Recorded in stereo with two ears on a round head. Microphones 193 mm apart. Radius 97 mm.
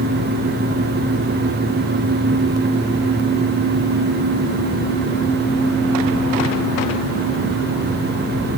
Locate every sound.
Only background noise.